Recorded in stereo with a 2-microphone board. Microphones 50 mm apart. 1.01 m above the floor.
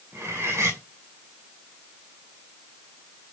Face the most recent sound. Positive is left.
turn(degrees=-80)